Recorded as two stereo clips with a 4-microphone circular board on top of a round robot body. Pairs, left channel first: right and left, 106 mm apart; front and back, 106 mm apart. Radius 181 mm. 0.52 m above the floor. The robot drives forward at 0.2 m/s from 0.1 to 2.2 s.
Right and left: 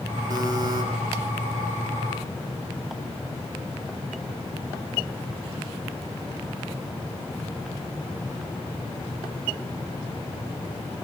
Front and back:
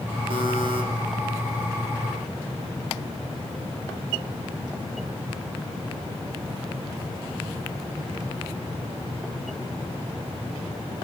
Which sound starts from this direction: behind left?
A buzzer, at 0.3 s.